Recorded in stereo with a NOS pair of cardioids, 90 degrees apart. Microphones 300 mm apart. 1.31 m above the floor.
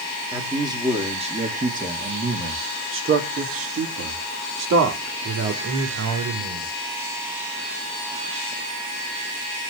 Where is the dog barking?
I don't hear a dog barking.